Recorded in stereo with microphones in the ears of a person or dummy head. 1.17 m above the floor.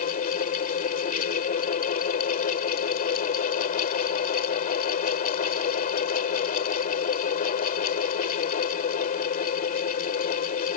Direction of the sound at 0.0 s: 45° left (ahead or behind).